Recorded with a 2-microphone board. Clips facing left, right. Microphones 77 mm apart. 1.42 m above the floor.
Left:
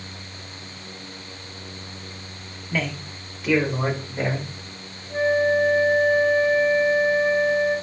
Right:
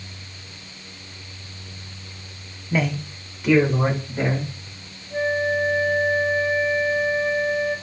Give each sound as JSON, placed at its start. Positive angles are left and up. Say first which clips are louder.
{"t": 2.7, "sound": "a man speaking", "louder": "right 4 dB", "side_deg": -15, "distance_m": 0.7}
{"t": 5.1, "sound": "a flute", "louder": "left 3 dB", "side_deg": 20, "distance_m": 5.0}